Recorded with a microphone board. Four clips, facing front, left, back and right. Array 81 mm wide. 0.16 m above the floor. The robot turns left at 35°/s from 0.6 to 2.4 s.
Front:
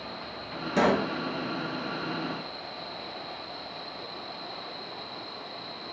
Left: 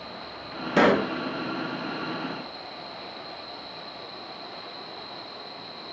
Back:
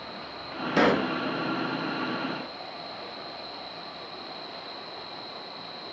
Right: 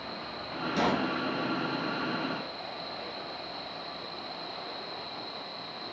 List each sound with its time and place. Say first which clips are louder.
0.8 s a pop: left 8 dB, back 1 dB; 115° left, 0.8 m; by 1.1 s 100° left, 0.8 m